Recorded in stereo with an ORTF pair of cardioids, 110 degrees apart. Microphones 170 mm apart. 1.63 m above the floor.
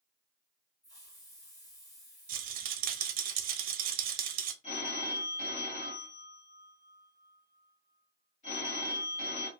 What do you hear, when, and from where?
0.8 s a hiss: 20° left, 1.7 m
2.3 s a rattle: 60° right, 0.5 m
4.6 s a phone ringing: 40° left, 1.8 m